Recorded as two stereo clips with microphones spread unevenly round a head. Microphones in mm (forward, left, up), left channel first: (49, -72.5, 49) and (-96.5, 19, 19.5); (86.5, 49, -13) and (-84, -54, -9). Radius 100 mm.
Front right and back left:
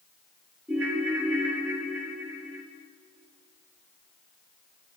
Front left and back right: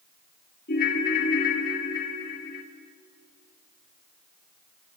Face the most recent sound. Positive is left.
turn(degrees=60)